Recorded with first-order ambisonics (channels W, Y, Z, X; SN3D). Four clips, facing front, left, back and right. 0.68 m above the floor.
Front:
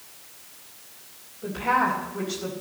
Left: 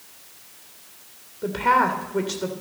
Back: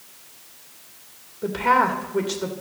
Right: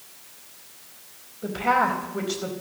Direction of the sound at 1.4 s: 135° left.